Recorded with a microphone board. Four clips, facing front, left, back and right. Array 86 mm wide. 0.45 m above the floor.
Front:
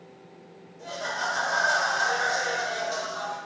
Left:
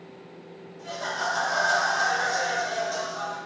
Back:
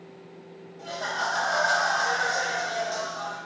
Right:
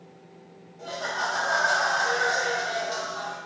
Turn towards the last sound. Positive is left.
turn(degrees=-55)